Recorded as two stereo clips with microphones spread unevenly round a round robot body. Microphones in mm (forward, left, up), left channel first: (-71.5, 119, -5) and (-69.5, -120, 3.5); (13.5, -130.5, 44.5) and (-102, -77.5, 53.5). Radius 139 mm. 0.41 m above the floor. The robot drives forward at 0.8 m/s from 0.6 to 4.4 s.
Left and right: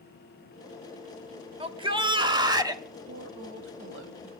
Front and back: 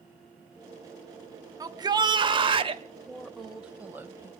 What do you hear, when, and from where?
1.6 s a shout: 150° right, 1.7 m; by 2.8 s 165° right, 2.5 m
3.1 s a woman speaking: 105° right, 1.8 m; by 4.3 s 135° right, 2.5 m